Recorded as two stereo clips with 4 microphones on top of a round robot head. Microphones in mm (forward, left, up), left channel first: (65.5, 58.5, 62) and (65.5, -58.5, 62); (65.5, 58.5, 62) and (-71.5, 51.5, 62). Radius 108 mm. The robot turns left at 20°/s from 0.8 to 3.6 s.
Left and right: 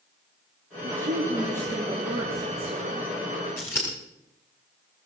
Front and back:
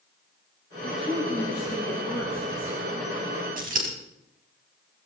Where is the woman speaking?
90° right, 2.5 m; by 3.1 s 135° right, 2.5 m.